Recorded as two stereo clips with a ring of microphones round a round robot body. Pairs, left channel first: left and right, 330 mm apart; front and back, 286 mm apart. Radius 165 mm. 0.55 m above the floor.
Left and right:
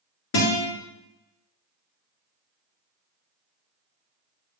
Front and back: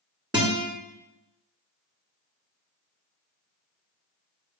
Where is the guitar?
110° left, 1.5 m.